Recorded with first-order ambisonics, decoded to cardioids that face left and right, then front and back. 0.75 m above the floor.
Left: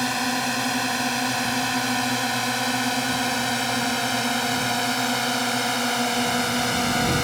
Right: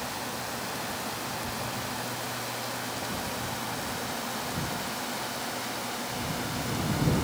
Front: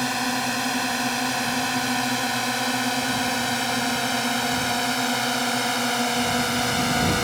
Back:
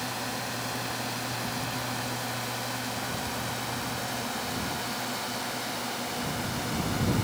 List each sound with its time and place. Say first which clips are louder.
0.0 s a drone: left 10 dB, front 9 dB; 55° left; by 7.2 s 50° left